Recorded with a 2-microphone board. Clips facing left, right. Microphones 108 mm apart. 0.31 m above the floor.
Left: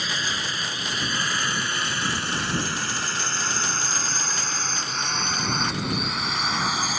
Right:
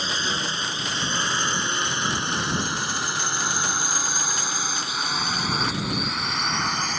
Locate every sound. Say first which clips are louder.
0.0 s a drone: right 2 dB; 30° right (ahead or behind); by 7.0 s 5° left (ahead or behind)